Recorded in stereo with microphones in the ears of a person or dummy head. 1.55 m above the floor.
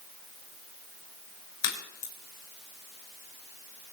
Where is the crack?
55° left (ahead or behind), 6 m.